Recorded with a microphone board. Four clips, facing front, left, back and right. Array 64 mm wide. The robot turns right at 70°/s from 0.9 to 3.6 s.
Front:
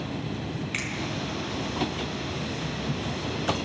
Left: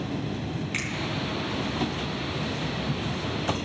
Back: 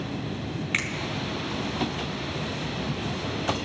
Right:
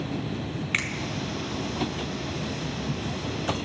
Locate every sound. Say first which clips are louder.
0.7 s a finger snap: right 6 dB, back 6 dB; 125° right, 1.3 m